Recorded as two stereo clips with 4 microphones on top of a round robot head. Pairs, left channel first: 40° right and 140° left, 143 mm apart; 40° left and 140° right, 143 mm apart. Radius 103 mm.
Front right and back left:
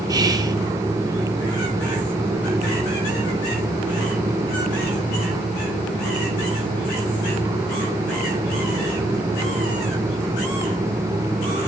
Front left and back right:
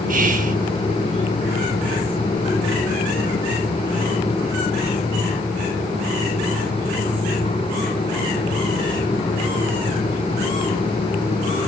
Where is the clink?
I don't hear a clink.